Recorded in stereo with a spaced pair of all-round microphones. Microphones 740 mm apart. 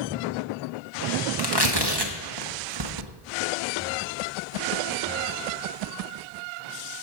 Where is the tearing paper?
35° right (ahead or behind), 1.0 m.